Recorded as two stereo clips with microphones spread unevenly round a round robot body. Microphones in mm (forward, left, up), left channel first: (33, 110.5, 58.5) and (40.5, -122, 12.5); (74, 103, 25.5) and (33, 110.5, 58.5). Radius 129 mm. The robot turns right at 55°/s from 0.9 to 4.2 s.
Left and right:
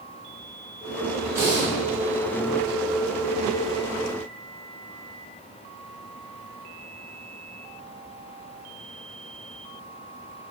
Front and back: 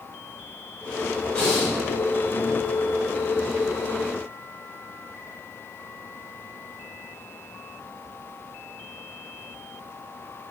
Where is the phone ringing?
No phone ringing in this recording.